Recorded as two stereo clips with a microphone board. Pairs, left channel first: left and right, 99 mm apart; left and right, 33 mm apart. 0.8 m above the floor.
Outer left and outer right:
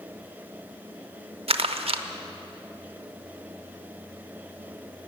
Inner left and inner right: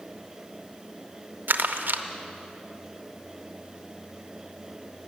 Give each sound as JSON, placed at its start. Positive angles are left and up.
{"t": 1.5, "sound": "crumpling", "side_deg": -80, "distance_m": 0.5}